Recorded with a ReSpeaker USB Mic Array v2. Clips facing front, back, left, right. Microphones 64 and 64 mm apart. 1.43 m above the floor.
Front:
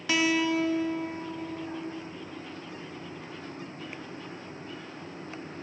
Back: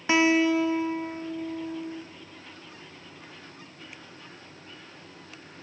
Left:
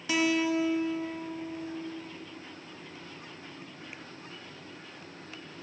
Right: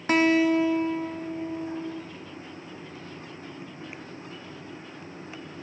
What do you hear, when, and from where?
0.1 s a guitar: 120° right, 0.6 m